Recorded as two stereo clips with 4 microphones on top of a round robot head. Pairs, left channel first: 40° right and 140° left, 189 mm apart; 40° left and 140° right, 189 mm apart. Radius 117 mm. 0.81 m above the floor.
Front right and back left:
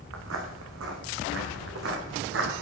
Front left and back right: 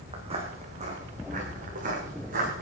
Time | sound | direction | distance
0.1 | footsteps | 160° left | 3 m